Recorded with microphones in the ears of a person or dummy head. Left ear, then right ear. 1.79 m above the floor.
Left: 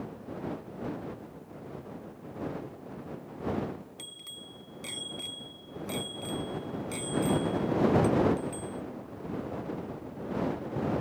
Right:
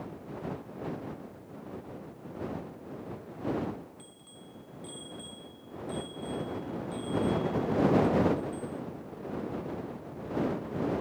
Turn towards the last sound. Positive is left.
turn(degrees=65)  # may be behind; listen again after turning